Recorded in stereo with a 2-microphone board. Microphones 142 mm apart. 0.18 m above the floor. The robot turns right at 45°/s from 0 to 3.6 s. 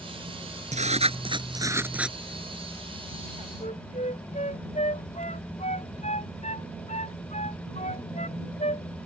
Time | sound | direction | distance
0.7 | writing | 70° right | ?
3.6 | a flute | 55° left (ahead or behind) | ?